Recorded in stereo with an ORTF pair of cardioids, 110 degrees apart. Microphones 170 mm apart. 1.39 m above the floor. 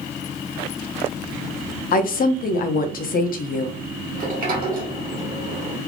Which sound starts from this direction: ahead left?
A woman speaking, at 1.9 s.